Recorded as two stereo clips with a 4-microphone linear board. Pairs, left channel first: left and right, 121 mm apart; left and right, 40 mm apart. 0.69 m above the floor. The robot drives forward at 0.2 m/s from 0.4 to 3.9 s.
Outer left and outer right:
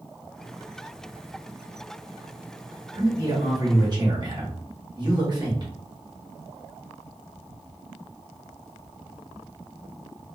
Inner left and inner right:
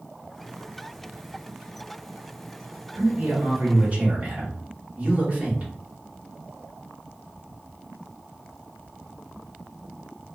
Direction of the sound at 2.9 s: 40° right (ahead or behind).